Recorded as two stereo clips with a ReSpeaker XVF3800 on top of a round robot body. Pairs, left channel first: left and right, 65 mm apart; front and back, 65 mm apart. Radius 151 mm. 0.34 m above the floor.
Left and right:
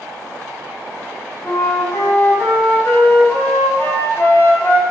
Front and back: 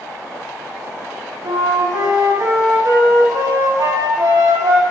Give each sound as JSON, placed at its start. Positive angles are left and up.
{"t": 1.4, "sound": "a flute", "azimuth_deg": 155, "distance_m": 3.5}